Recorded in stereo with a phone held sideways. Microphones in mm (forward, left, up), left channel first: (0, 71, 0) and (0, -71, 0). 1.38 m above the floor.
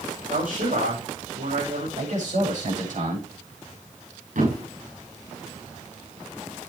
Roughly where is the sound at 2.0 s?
Right.